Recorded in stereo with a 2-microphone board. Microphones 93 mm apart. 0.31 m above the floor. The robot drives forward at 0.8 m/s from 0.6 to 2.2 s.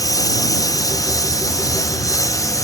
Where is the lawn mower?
40° left (ahead or behind).